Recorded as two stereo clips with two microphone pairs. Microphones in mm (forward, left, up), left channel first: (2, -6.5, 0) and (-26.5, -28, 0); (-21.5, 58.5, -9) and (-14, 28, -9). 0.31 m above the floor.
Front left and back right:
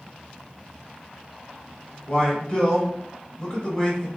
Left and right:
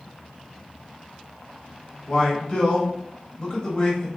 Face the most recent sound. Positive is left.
turn(degrees=75)